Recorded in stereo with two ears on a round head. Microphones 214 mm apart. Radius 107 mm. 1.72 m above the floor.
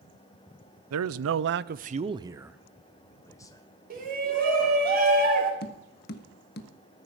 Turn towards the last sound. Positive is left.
turn(degrees=45)  # may be behind; listen again after turning